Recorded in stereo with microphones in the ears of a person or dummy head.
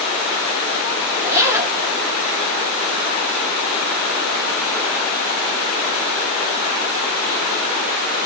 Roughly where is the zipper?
Centre.